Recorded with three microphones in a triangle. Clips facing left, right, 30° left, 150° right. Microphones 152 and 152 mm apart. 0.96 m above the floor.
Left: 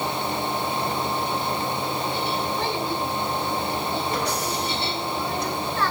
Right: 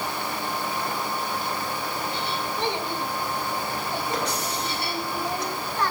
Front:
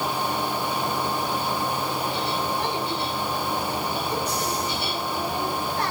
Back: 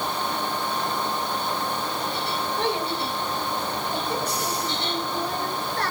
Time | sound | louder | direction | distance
2.6 | a child speaking | left 2 dB, back 1 dB | 160° right | 9 m